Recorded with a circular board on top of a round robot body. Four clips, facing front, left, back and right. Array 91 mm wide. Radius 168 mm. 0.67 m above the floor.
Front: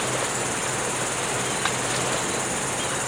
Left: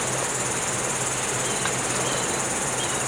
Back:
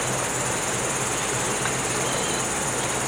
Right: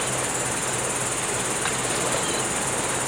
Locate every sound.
0.0 s an insect: 170° left, 0.7 m